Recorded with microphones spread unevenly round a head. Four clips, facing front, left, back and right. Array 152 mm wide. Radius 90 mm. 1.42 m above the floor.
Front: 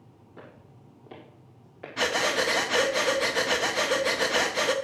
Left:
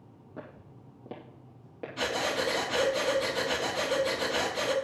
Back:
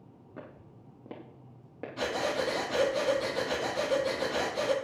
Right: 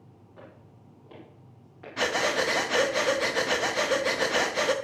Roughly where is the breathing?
Right.